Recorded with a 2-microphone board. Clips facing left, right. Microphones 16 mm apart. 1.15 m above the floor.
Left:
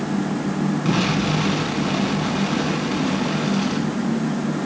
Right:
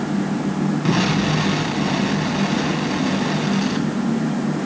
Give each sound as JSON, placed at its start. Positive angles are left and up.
{"t": 0.8, "sound": "an explosion", "side_deg": -55, "distance_m": 7.0}